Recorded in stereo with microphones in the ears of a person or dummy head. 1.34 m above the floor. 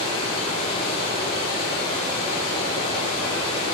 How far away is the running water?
About 1.9 m.